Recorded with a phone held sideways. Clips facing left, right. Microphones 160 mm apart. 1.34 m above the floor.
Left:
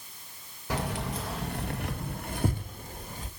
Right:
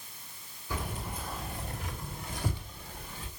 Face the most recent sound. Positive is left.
turn(degrees=40)  # may be behind; listen again after turning